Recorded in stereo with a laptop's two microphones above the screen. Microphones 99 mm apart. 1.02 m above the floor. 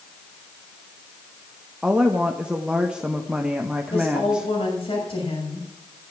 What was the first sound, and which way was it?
A woman speaking, 10° right (ahead or behind).